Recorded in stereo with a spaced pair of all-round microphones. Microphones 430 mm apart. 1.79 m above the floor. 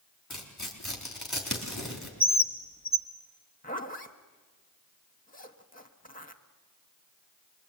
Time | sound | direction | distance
0.3 | tearing paper | 40° left (ahead or behind) | 4 m
2.2 | a bird | 15° left (ahead or behind) | 1.3 m
3.6 | a zipper | 20° left (ahead or behind) | 1.2 m